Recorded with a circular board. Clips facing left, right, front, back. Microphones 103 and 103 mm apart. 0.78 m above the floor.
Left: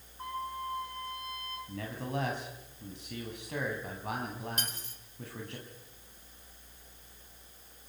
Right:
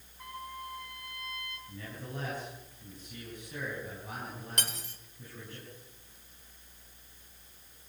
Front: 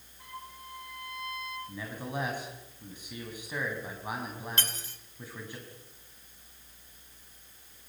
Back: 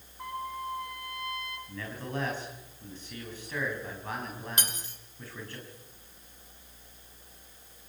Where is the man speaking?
75° left, 5 m.